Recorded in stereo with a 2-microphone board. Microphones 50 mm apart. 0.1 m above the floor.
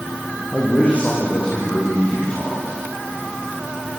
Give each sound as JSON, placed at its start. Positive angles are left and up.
{"t": 0.5, "sound": "a man speaking", "side_deg": 30, "distance_m": 6.0}